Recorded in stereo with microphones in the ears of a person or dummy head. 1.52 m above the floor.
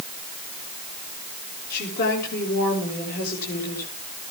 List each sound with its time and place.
1.7 s a woman speaking: 55° left (ahead or behind), 6.5 m